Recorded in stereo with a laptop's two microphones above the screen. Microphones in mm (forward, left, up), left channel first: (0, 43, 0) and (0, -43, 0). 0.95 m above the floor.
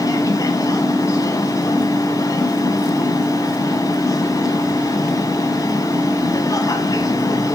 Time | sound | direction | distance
0.0 | a machine running | 40° left (ahead or behind) | 2.5 m